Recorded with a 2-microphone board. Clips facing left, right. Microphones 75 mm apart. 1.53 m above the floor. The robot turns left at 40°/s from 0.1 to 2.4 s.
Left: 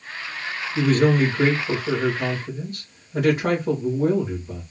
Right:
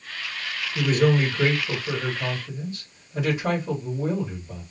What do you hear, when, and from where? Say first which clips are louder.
0.8 s a man speaking: left 3 dB; 165° right, 2 m; by 4.6 s 130° left, 2 m